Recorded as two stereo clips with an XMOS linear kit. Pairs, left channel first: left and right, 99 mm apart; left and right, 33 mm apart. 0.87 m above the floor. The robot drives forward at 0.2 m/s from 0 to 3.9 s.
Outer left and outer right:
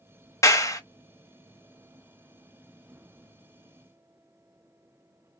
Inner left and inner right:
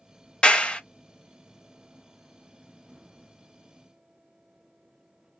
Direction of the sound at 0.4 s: 30° left (ahead or behind).